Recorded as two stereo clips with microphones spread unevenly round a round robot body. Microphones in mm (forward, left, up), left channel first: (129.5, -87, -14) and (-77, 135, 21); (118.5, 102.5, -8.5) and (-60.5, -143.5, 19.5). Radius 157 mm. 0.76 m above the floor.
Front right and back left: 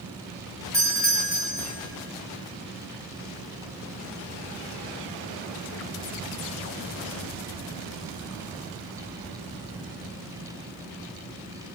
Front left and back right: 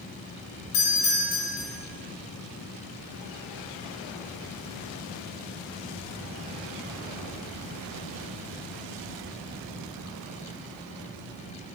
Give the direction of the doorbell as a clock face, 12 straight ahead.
11 o'clock.